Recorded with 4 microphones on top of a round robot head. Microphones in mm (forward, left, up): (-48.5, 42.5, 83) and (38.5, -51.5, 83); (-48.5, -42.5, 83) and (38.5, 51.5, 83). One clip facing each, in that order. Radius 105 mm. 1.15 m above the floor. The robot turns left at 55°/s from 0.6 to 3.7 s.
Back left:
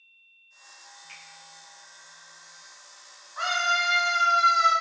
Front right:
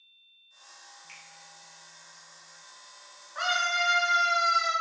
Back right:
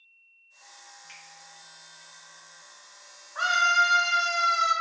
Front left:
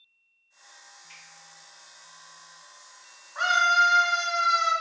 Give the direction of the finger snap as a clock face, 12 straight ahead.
4 o'clock.